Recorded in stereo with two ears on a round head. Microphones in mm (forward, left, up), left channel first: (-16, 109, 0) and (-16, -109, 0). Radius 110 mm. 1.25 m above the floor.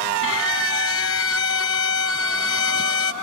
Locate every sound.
0.2 s a violin: 60° left (ahead or behind)